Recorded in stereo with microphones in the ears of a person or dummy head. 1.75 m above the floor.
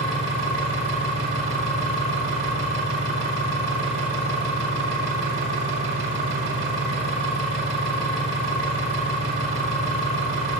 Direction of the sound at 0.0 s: 65° right (ahead or behind).